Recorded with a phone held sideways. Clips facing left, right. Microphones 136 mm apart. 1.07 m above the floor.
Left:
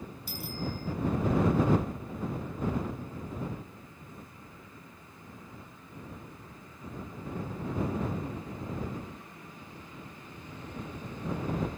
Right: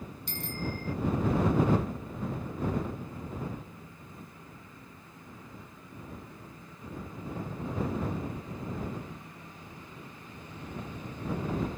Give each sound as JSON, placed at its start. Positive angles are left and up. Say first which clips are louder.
{"t": 0.3, "sound": "a bicycle bell", "louder": "even", "side_deg": 5}